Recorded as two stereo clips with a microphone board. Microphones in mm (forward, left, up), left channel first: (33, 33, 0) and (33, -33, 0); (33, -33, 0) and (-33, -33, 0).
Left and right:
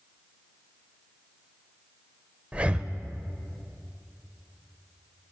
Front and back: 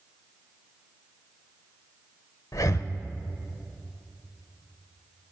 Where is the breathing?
20° right, 0.5 m.